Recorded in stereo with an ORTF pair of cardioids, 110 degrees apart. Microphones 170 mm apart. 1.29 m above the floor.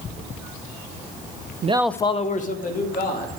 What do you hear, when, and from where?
1.6 s a man speaking: 45° right, 0.5 m; by 3.4 s 65° left, 2.5 m